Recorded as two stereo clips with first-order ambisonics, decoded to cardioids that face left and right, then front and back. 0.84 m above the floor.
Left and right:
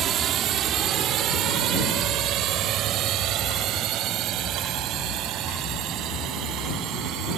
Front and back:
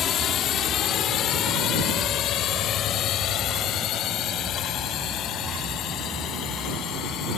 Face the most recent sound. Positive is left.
turn(degrees=-50)